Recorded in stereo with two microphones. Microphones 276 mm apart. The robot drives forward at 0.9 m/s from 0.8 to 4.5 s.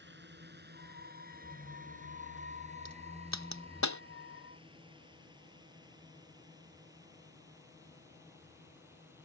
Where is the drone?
40° right (ahead or behind); by 9.2 s 10° right (ahead or behind).